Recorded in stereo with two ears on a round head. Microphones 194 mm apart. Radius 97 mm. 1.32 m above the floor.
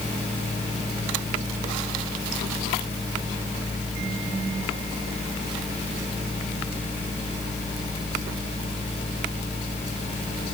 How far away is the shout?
I don't hear a shout.